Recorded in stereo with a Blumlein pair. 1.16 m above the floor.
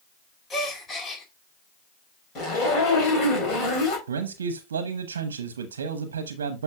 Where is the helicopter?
No helicopter in this recording.